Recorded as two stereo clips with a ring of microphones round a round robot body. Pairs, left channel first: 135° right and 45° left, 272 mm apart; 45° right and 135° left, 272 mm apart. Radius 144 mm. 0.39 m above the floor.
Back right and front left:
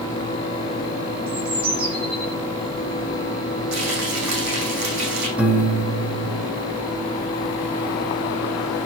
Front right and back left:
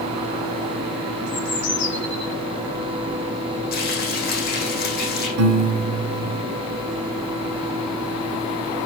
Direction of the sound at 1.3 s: 5° left.